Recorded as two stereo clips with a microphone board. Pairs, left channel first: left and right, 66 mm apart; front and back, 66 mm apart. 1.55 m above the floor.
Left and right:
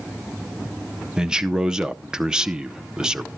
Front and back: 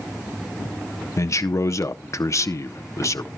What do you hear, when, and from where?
1.2 s a man speaking: 15° right, 0.6 m